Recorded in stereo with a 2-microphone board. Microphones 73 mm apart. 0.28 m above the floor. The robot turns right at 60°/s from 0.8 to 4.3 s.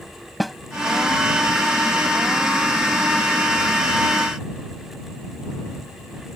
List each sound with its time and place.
0.4 s a snare drum: centre (ahead or behind)